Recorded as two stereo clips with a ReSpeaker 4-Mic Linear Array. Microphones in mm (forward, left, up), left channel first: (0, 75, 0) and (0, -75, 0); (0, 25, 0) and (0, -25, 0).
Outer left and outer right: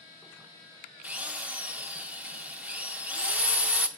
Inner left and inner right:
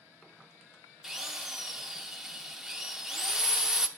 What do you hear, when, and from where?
1.0 s a drill: 10° right (ahead or behind), 0.8 m